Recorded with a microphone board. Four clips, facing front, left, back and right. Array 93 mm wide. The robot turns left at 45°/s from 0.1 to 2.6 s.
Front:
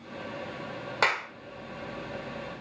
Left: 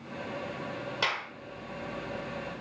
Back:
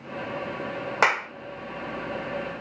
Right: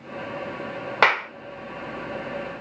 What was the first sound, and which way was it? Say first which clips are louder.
A clap: right 14 dB, back 4 dB; 110° right.